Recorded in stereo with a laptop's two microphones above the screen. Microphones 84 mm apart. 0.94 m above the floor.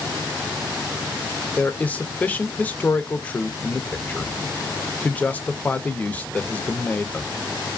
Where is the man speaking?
15° left (ahead or behind), 0.6 m.